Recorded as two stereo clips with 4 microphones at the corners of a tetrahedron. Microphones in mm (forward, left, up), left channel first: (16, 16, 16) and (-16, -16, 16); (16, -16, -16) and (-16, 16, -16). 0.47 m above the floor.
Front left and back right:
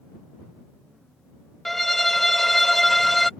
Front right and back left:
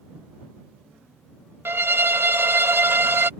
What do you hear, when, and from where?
1.6 s a violin: 130° left